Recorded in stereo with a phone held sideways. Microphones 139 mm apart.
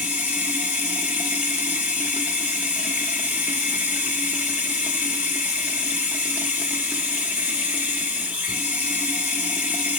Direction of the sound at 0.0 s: 10° right (ahead or behind).